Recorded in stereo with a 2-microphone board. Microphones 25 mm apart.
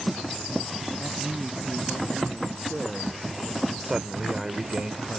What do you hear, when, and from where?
1.0 s a man speaking: 30° right (ahead or behind); by 3.7 s 25° right (ahead or behind)
3.8 s a man speaking: 25° right (ahead or behind)